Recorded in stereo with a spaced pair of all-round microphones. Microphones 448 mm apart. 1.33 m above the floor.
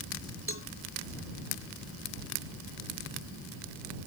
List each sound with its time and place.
0.5 s a cowbell: 30° left (ahead or behind)